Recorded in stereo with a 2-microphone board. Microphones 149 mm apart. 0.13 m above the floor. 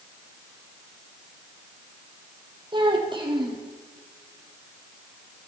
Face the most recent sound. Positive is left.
turn(degrees=-35)  # may be behind; listen again after turning